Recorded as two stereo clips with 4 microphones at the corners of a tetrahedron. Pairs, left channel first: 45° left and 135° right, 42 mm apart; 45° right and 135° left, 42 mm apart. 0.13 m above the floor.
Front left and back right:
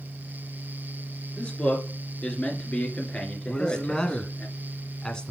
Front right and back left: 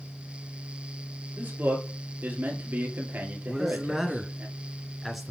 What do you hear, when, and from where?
1.4 s a man speaking: 100° left, 2.5 m
3.5 s a man speaking: 55° left, 1.1 m